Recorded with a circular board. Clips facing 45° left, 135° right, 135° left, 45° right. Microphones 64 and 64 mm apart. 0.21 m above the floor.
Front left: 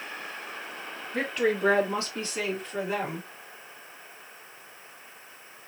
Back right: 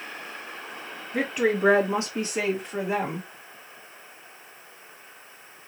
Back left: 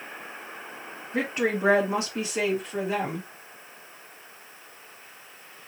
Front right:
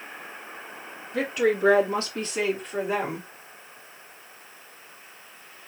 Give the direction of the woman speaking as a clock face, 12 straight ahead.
7 o'clock.